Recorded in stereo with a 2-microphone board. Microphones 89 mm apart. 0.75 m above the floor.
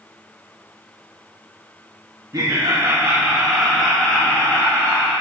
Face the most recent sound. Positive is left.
turn(degrees=30)  # may be behind; listen again after turning